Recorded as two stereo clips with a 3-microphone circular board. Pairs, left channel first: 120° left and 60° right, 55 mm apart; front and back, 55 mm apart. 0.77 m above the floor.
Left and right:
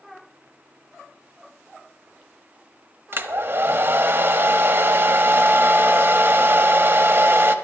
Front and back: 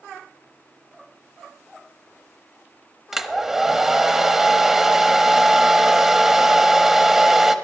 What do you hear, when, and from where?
3.1 s a hair dryer: 100° right, 0.9 m